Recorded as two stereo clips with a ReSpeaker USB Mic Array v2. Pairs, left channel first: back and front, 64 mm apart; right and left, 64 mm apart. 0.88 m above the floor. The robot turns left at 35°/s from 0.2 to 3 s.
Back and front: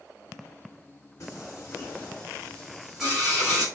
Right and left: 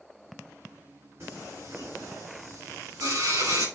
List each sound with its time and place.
1.2 s singing: 140° left, 6 m; by 3.7 s 80° left, 6 m